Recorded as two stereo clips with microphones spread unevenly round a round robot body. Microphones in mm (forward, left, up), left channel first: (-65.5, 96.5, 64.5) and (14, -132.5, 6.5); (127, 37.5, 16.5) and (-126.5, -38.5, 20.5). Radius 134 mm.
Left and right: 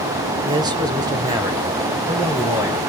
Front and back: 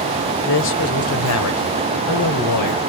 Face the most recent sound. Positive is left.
turn(degrees=5)